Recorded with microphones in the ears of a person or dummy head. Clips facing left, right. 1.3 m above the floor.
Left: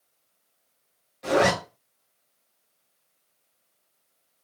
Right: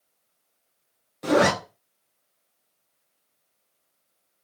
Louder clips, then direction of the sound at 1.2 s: Right 2 dB; 60° right (ahead or behind).